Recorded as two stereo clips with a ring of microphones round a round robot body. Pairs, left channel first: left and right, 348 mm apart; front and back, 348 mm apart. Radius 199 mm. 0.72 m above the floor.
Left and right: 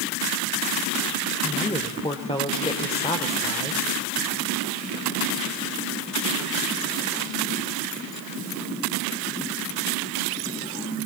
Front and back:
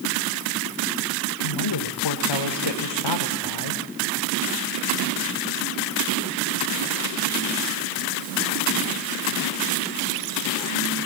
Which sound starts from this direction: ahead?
A woman speaking, at 1.4 s.